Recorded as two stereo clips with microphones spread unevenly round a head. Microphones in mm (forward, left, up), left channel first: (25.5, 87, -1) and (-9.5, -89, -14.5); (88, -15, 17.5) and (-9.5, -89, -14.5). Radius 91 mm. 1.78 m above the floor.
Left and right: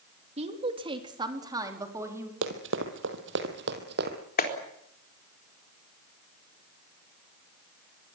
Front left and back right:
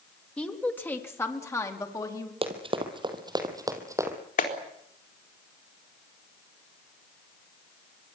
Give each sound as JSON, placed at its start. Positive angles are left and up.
{"t": 0.4, "sound": "a woman speaking", "azimuth_deg": -40, "distance_m": 3.0}
{"t": 2.4, "sound": "running footsteps", "azimuth_deg": -95, "distance_m": 3.5}
{"t": 4.4, "sound": "a clap", "azimuth_deg": 35, "distance_m": 4.0}